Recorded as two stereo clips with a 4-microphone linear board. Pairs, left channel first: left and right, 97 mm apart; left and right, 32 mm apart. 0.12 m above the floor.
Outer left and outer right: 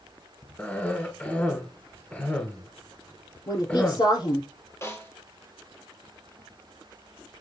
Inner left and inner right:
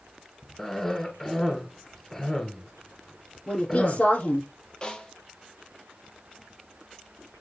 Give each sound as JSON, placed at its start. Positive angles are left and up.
{"t": 0.6, "sound": "a cough", "side_deg": 15, "distance_m": 1.7}
{"t": 3.5, "sound": "a woman speaking", "side_deg": 50, "distance_m": 4.0}
{"t": 4.8, "sound": "a snare drum", "side_deg": 30, "distance_m": 2.5}